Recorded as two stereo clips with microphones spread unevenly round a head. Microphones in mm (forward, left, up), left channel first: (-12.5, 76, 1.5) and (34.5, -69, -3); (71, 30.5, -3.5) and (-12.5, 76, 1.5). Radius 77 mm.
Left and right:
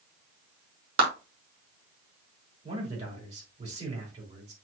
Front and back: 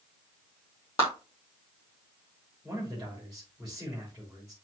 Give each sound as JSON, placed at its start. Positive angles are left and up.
{"t": 1.0, "sound": "a clap", "azimuth_deg": -100, "distance_m": 2.5}
{"t": 2.6, "sound": "a man speaking", "azimuth_deg": -120, "distance_m": 3.5}